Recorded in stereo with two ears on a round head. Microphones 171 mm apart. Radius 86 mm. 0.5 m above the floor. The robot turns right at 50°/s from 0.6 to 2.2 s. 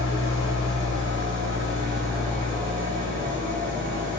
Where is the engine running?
75° left, 1.6 m; by 4.2 s 155° left, 1.6 m.